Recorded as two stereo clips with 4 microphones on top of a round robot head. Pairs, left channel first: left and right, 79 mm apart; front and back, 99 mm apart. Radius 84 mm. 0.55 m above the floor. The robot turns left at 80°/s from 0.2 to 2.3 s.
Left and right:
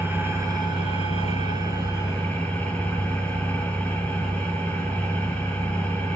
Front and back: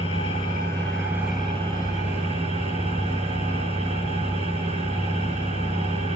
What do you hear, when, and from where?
0.0 s an engine running: 25° right, 7.5 m; by 6.2 s 165° left, 7.5 m